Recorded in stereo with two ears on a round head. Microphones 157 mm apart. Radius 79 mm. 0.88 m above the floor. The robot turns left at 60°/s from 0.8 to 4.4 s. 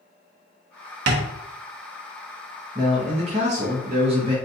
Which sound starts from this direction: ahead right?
A man speaking, at 2.8 s.